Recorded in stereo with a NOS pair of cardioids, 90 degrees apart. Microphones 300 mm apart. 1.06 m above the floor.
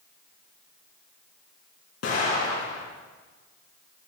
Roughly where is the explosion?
Ahead left.